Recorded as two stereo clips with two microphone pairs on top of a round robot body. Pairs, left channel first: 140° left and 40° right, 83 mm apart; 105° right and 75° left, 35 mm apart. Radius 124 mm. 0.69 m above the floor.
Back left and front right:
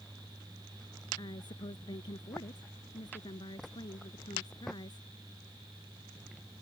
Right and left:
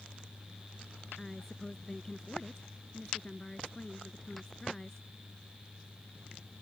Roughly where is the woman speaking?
Behind.